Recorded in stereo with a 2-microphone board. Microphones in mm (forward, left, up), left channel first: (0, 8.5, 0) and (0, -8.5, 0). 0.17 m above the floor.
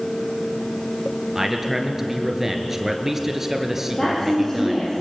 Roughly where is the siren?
No siren in this recording.